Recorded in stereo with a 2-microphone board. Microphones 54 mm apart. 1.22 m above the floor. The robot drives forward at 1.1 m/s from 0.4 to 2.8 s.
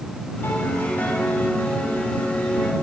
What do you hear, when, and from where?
0.4 s a piano: 40° left (ahead or behind), 5.5 m; by 2.7 s 30° left (ahead or behind), 8 m